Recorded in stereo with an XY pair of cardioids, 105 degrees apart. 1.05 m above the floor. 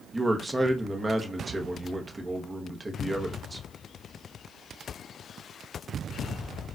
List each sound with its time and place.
0.1 s a man speaking: 20° right, 0.8 m